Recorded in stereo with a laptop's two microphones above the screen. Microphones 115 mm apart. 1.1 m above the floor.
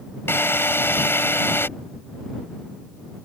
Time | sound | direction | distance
0.3 | a drill | 20° left (ahead or behind) | ?